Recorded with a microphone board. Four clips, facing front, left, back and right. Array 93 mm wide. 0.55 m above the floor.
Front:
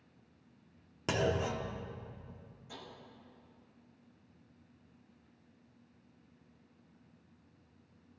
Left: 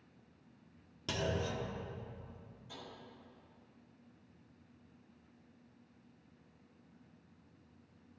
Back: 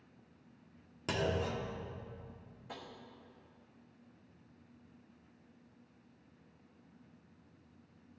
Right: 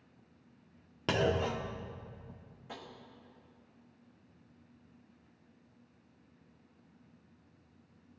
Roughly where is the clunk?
Right.